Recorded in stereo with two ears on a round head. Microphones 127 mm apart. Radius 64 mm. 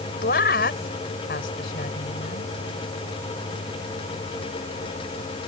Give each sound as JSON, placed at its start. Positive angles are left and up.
{"t": 0.2, "sound": "a woman speaking", "side_deg": 75}